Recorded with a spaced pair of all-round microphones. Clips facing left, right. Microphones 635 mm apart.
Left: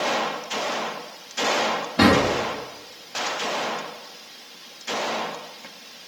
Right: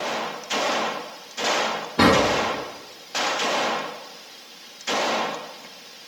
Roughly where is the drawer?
Centre.